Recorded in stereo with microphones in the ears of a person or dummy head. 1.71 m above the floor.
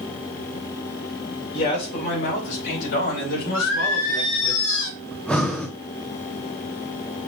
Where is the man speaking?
55° left (ahead or behind), 2.5 m; by 4.5 s 75° left (ahead or behind), 5.5 m.